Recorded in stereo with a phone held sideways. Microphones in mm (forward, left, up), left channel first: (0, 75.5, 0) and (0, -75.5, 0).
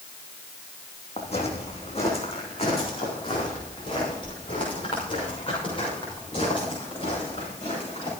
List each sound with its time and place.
1.2 s footsteps: 50° left (ahead or behind), 3 m; by 8.1 s 35° left (ahead or behind), 9 m